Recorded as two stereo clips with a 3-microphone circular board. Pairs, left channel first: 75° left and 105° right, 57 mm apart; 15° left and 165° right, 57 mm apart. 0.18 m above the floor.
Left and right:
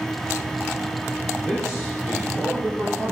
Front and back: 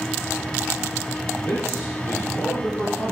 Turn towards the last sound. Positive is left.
turn(degrees=-20)